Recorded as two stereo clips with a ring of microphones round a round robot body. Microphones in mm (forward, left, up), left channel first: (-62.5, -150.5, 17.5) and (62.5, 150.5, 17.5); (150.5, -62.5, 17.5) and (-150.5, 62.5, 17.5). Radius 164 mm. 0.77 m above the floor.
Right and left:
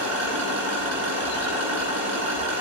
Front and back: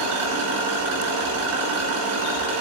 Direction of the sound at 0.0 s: 115° left.